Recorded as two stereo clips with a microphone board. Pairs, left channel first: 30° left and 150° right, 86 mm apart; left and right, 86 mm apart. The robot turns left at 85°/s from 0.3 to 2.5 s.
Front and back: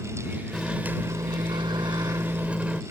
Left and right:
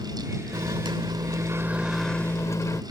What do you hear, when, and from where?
0.5 s a microwave: 55° right; by 2.8 s 135° left